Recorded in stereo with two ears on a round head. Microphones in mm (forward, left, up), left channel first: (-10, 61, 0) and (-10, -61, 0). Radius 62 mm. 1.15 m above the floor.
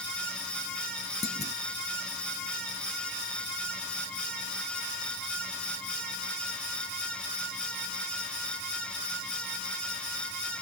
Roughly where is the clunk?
Left.